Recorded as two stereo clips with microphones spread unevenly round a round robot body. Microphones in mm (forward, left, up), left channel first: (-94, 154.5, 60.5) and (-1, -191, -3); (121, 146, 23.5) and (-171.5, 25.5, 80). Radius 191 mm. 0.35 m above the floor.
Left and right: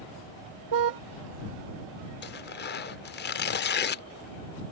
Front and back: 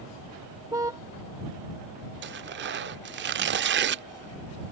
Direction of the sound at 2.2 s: 160° left.